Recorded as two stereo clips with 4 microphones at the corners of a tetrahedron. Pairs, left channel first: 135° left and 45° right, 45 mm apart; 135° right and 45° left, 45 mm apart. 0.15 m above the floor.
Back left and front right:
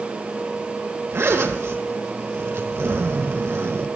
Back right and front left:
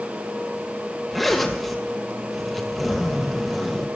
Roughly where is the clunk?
I don't hear a clunk.